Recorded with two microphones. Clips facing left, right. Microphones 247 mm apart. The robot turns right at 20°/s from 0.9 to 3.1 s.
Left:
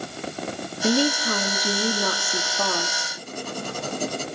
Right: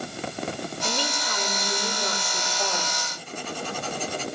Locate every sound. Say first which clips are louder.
0.8 s a woman speaking: left 15 dB; 60° left, 3 m; by 3.0 s 100° left, 3 m
3.2 s writing: left 3 dB; 45° left (ahead or behind), 5.5 m